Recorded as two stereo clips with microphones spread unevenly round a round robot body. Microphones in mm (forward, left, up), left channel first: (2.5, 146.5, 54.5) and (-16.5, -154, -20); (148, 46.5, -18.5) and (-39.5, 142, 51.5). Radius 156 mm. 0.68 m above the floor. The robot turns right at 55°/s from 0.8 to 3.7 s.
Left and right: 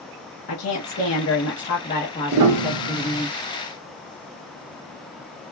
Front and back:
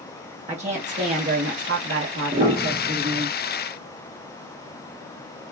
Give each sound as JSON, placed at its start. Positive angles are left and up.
{"t": 0.5, "sound": "a woman speaking", "azimuth_deg": 85, "distance_m": 0.8}
{"t": 2.3, "sound": "a piano", "azimuth_deg": -140, "distance_m": 0.6}